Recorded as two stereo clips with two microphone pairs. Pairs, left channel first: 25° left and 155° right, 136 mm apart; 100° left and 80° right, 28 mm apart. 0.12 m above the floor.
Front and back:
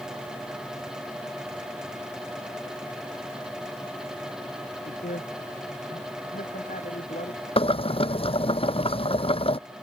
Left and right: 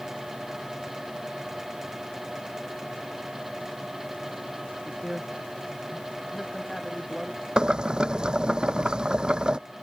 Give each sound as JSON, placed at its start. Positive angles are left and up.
{"t": 4.8, "sound": "a man speaking", "azimuth_deg": 15}
{"t": 7.6, "sound": "boiling", "azimuth_deg": -20}